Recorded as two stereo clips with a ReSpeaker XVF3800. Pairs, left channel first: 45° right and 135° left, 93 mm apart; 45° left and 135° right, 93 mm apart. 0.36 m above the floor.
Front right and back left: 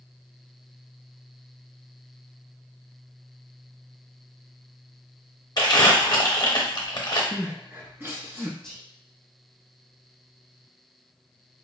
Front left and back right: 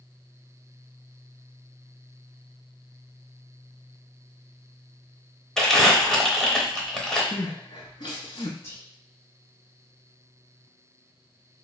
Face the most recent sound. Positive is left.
turn(degrees=30)